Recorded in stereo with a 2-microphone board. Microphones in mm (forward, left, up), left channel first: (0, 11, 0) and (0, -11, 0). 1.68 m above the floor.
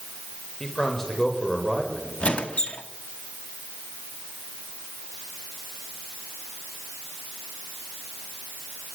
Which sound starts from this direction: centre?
A man speaking, at 0.6 s.